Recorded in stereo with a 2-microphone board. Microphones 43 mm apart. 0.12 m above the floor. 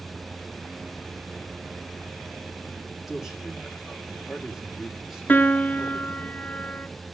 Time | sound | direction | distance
3.1 | a man speaking | 5° right (ahead or behind) | 5.5 m
5.3 | a piano | 40° left (ahead or behind) | 0.6 m